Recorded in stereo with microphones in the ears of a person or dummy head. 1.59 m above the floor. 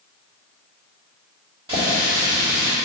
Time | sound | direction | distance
1.7 | a running tap | 25° right (ahead or behind) | 2.5 m